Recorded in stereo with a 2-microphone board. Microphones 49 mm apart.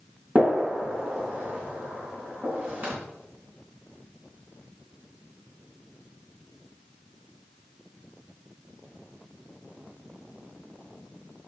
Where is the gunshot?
35° right (ahead or behind), 3.5 m.